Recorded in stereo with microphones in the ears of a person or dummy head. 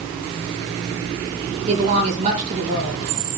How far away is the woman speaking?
About 5.5 m.